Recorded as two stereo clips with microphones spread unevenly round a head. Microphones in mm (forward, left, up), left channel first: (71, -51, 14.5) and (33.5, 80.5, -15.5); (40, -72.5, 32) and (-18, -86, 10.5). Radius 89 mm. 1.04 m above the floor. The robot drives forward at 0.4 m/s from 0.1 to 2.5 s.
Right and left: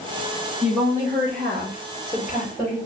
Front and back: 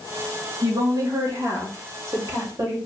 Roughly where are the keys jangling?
I don't hear keys jangling.